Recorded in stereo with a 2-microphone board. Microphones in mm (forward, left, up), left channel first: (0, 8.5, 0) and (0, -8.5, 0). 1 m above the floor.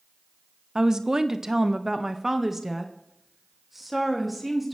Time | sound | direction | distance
0.8 | a woman speaking | 35° right (ahead or behind) | 0.7 m